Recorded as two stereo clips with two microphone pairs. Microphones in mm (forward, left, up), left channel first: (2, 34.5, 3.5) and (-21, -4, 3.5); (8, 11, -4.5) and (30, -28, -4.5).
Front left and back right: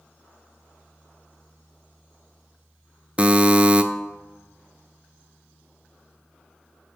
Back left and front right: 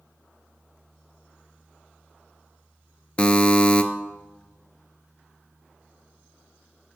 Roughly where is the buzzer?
Behind.